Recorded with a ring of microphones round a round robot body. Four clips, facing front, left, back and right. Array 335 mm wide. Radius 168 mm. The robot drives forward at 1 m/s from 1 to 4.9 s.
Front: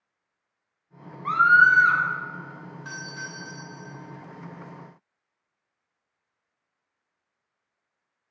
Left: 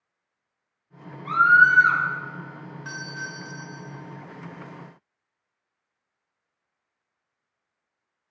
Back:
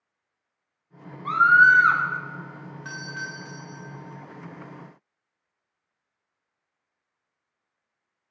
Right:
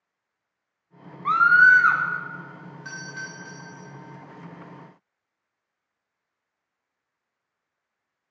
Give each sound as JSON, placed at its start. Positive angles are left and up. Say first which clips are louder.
{"t": 1.2, "sound": "a scream", "louder": "right 1 dB, back 1 dB", "azimuth_deg": -80, "distance_m": 1.0}
{"t": 2.9, "sound": "a doorbell", "louder": "left 1 dB, back 3 dB", "azimuth_deg": -145, "distance_m": 2.0}